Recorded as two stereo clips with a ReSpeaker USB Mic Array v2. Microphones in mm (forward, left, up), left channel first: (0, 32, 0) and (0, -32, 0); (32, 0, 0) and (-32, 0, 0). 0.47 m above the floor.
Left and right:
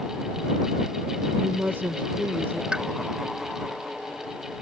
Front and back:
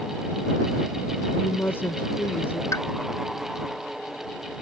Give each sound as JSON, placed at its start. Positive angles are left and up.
{"t": 1.4, "sound": "a woman speaking", "azimuth_deg": -45}
{"t": 2.7, "sound": "a pop", "azimuth_deg": -15}